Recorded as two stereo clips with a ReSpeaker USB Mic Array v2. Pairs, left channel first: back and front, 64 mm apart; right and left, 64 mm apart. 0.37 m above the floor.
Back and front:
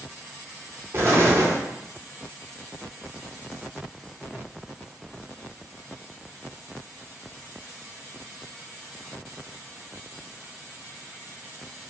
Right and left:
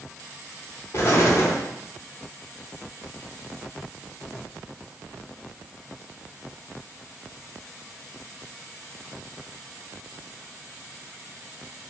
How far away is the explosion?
About 0.6 m.